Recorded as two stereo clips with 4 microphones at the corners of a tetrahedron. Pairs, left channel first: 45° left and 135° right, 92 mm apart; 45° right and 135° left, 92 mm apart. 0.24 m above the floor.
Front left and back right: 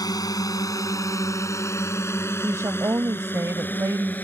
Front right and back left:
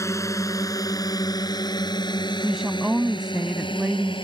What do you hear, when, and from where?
0.0 s a drone: 5° left; by 4.2 s 25° right
2.4 s a woman speaking: 145° right